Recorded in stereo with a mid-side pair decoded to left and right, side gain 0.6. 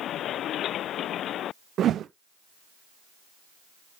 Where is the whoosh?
45° right, 0.7 m.